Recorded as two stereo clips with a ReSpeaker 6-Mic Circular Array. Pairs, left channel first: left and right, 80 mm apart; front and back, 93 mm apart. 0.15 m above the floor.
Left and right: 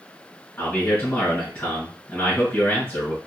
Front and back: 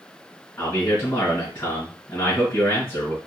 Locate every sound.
0.6 s a man speaking: 30° left, 2 m